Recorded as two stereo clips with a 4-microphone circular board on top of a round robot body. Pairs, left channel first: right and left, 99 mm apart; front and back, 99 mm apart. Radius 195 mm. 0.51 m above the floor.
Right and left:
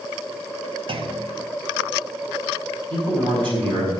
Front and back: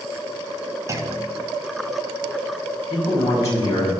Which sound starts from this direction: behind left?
A clunk, at 0.9 s.